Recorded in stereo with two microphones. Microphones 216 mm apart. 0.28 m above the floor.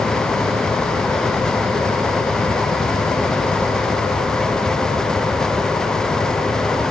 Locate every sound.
Only background noise.